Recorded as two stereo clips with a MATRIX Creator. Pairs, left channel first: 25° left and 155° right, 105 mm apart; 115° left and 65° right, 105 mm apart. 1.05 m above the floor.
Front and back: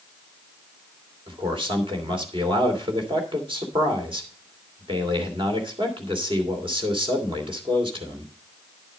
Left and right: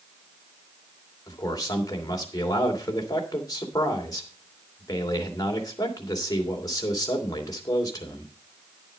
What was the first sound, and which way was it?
A man speaking, 165° left.